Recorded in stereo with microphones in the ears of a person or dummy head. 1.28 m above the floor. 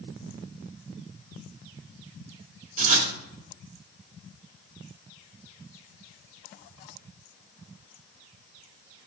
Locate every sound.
2.8 s writing: 40° right (ahead or behind), 1.7 m